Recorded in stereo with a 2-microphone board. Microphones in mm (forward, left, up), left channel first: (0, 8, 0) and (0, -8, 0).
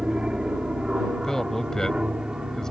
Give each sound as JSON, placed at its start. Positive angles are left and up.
{"t": 0.0, "sound": "an aircraft", "side_deg": -70}
{"t": 1.2, "sound": "a man speaking", "side_deg": 35}